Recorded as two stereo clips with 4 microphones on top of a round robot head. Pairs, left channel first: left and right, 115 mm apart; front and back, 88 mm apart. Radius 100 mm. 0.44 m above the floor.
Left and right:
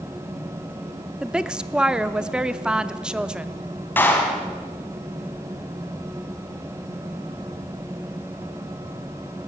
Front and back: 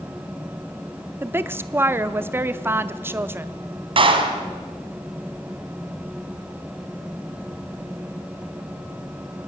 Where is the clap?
165° left, 2.5 m.